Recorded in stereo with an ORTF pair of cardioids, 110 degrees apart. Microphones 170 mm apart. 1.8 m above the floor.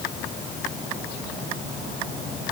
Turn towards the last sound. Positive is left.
No sound to turn to.